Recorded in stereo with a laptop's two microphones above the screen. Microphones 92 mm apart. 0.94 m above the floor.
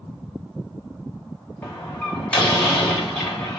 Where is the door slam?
15° left (ahead or behind), 2.5 m.